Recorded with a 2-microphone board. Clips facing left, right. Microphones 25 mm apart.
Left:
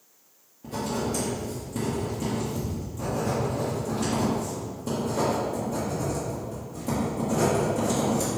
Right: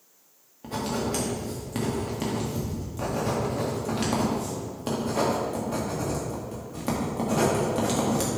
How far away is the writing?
About 2 m.